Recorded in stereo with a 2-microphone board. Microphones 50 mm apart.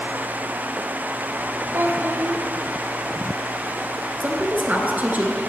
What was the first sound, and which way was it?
A child speaking, 50° right (ahead or behind).